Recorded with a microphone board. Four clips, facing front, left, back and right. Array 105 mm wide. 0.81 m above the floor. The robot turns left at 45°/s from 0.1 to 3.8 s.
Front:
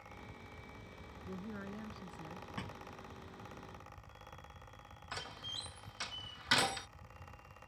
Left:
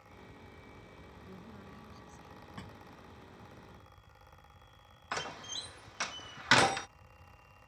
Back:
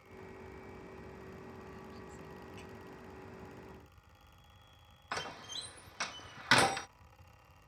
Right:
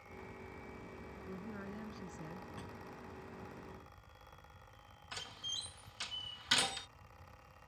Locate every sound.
1.3 s a woman speaking: 15° right; by 2.5 s 70° right
2.6 s a thud: 15° left; by 2.8 s 5° left
5.1 s a door slam: 120° left